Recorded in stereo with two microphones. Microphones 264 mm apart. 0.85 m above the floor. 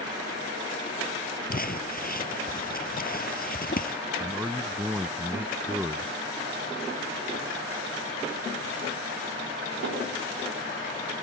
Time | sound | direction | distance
1.5 | crumpling | 35° left (ahead or behind) | ?
4.2 | a man speaking | 5° right (ahead or behind) | ?